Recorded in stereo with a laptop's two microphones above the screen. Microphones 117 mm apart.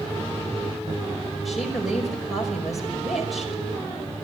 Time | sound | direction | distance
1.4 | a woman speaking | centre (ahead or behind) | 5.5 m